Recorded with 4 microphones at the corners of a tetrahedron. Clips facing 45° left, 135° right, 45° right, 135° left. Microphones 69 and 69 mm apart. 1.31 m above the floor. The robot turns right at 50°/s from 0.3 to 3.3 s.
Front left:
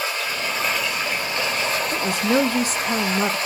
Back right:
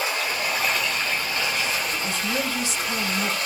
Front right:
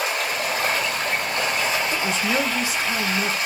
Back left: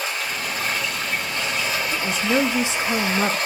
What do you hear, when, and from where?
0.0 s running water: 65° right, 2 m; by 3.5 s 85° left, 2 m
1.9 s a woman speaking: 35° left, 0.5 m; by 3.4 s 105° left, 0.5 m